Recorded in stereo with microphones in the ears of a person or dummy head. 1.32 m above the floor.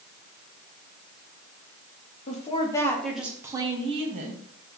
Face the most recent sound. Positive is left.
turn(degrees=-45)  # may be behind; listen again after turning